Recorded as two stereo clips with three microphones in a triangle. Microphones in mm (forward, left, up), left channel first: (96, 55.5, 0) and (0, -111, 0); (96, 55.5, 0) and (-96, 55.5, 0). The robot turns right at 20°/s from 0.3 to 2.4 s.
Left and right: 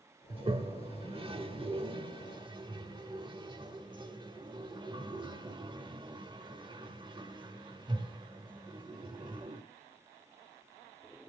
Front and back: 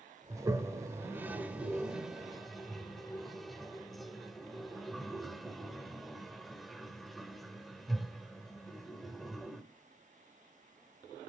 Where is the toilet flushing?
130° right, 1.0 m; by 9.6 s 90° right, 1.0 m.